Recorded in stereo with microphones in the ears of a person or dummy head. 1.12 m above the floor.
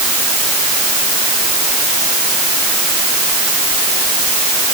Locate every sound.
Only background noise.